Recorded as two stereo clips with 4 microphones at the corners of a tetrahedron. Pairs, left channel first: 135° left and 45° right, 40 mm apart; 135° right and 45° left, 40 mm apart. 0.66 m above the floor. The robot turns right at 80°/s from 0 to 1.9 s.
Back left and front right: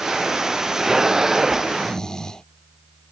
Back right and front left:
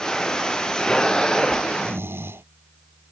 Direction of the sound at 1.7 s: 40° left.